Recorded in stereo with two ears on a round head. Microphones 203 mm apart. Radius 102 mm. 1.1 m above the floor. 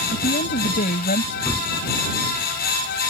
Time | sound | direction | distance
0.1 | a woman speaking | 35° left (ahead or behind) | ?
1.5 | a gunshot | 5° left (ahead or behind) | ?